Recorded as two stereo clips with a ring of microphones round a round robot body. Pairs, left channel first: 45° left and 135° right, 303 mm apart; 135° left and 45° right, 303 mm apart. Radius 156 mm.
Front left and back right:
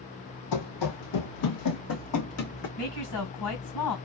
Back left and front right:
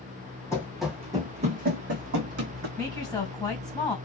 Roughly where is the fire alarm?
I don't hear a fire alarm.